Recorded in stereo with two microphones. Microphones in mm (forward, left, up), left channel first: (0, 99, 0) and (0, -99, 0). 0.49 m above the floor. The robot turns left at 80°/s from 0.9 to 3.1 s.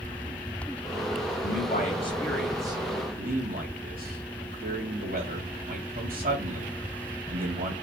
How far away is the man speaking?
About 3.5 m.